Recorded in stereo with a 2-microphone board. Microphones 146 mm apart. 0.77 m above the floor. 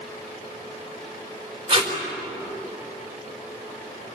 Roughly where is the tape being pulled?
Right.